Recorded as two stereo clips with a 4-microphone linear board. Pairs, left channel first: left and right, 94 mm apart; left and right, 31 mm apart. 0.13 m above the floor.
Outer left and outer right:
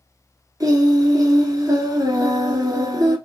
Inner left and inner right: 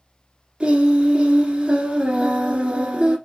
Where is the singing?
40° right (ahead or behind), 1.3 m.